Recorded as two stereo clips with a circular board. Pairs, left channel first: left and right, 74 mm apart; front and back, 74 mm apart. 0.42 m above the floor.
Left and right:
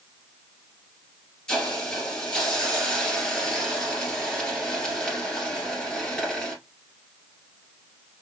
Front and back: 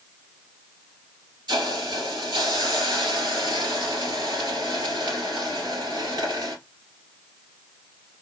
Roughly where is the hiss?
Behind.